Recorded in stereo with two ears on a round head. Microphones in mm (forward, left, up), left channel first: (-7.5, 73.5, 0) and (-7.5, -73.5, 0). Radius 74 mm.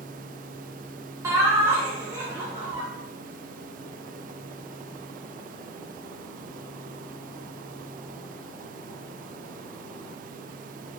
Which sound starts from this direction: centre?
Laughter, at 1.2 s.